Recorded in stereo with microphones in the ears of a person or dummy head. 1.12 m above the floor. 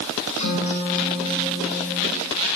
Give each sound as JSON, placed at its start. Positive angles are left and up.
{"t": 0.4, "sound": "a guitar", "side_deg": 40, "distance_m": 3.5}